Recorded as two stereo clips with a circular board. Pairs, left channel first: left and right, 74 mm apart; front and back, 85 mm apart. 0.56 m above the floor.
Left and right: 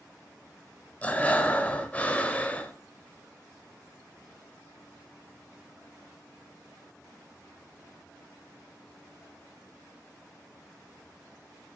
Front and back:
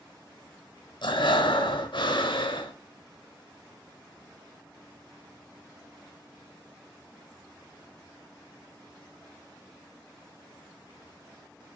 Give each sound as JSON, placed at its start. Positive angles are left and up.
{"t": 1.0, "sound": "breathing", "azimuth_deg": 20, "distance_m": 0.9}